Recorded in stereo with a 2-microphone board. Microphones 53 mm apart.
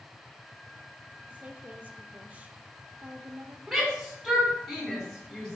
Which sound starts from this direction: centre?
A shout, at 3.7 s.